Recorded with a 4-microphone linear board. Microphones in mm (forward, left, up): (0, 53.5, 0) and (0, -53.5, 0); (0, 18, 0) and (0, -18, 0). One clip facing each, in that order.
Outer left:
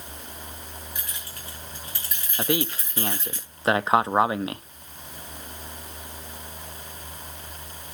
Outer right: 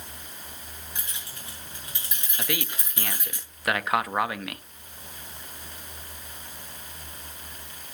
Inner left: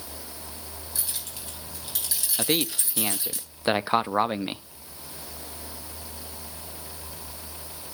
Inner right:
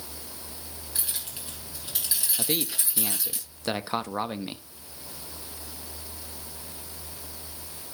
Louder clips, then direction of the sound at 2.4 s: Outer left 7 dB, inner left 6 dB; 30° left (ahead or behind).